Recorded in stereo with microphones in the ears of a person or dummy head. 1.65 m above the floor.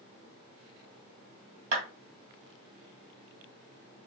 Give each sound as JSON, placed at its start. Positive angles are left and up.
{"t": 1.7, "sound": "a clap", "side_deg": -55, "distance_m": 2.0}